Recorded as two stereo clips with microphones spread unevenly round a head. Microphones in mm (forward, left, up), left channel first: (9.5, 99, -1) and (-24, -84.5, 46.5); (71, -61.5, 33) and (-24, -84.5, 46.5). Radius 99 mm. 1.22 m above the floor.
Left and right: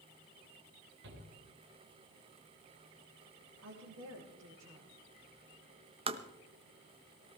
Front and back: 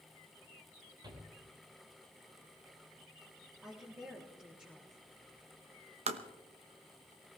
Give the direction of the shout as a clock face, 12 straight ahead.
4 o'clock.